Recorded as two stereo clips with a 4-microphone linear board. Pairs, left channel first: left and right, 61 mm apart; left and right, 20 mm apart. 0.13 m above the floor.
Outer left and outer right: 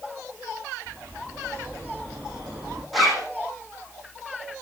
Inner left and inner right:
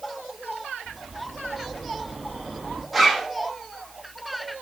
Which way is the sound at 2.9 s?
Centre (ahead or behind).